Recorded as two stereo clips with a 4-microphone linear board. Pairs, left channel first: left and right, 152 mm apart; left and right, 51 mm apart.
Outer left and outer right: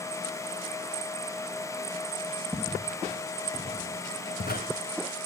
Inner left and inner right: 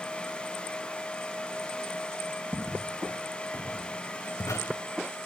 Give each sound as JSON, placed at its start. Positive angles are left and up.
{"t": 2.5, "sound": "footsteps", "side_deg": 5, "distance_m": 1.6}